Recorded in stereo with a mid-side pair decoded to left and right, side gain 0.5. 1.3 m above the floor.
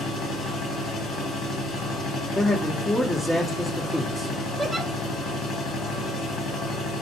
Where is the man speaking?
20° left, 1.2 m.